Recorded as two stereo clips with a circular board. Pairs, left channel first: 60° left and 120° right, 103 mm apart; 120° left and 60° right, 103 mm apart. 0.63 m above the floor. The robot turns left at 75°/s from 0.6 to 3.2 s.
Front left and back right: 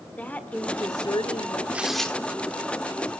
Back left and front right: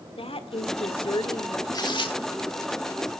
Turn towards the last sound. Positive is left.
turn(degrees=55)